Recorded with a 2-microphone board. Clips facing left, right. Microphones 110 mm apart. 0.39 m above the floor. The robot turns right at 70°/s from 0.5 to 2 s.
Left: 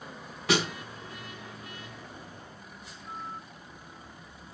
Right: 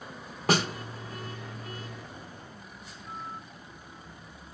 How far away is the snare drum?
About 1.8 m.